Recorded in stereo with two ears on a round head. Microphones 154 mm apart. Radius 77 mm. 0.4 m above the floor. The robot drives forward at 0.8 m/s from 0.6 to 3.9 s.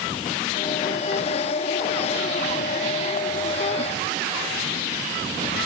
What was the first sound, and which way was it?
Only background noise.